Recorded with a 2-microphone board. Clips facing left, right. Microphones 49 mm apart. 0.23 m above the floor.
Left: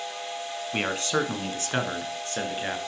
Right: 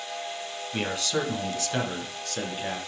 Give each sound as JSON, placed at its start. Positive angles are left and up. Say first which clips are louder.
{"t": 0.7, "sound": "a man speaking", "louder": "left 2 dB", "side_deg": 35, "distance_m": 1.7}